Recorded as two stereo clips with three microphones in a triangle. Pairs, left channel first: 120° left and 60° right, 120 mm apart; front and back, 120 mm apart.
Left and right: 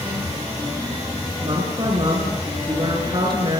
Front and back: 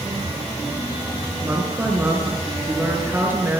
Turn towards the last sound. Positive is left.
turn(degrees=-110)